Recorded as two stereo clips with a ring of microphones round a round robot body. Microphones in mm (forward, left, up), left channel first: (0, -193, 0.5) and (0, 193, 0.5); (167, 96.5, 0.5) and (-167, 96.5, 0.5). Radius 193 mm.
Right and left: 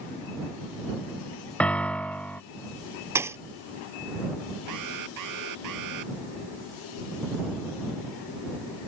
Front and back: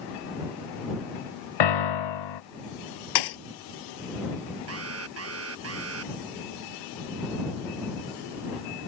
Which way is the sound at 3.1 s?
5° left.